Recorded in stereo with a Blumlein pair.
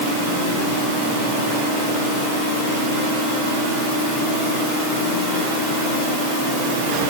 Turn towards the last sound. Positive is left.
No sound to turn to.